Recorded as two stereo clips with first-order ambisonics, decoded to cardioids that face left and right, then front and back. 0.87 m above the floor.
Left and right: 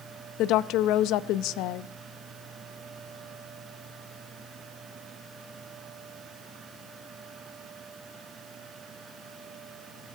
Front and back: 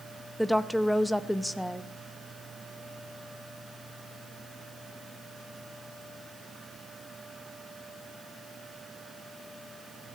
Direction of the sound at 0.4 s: 90° left.